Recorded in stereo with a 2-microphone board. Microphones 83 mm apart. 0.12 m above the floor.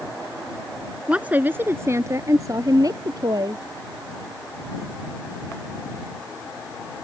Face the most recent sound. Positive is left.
turn(degrees=-55)  # may be behind; listen again after turning